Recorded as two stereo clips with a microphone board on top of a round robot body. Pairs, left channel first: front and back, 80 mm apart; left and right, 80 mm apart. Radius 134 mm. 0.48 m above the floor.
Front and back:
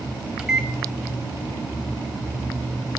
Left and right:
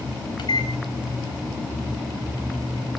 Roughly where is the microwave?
Left.